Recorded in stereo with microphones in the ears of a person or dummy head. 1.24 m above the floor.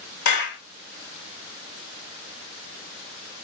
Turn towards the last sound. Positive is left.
turn(degrees=55)  # may be behind; listen again after turning